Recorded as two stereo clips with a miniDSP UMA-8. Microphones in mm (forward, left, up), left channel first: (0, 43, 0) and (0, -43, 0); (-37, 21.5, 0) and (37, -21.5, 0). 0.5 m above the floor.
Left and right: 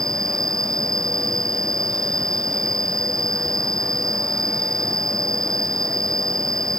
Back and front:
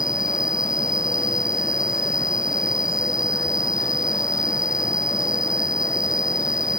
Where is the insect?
45° right.